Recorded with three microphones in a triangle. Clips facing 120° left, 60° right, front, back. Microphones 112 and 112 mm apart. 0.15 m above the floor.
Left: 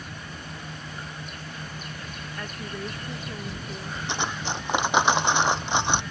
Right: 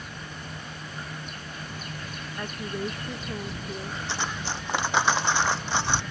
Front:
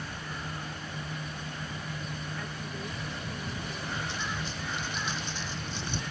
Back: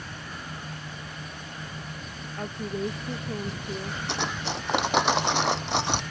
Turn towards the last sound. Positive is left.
turn(degrees=-170)